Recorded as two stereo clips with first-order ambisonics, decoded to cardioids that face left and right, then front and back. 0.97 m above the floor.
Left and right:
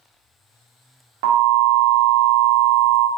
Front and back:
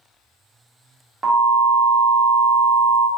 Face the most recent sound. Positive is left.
turn(degrees=-95)